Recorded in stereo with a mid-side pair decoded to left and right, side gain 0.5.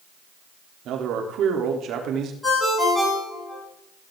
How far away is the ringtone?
About 7.5 m.